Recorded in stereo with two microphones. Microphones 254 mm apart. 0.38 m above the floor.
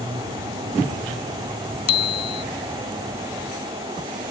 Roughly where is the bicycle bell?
Left.